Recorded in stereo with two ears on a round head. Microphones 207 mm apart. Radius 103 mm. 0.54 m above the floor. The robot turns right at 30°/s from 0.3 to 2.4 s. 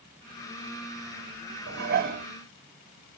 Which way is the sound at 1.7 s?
50° right (ahead or behind).